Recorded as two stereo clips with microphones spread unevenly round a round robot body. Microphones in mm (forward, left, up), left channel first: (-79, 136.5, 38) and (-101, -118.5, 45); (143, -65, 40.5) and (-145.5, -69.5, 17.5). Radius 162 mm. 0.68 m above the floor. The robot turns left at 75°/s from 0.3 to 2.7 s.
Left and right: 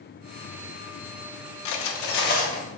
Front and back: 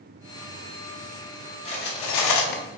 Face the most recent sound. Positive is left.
turn(degrees=-5)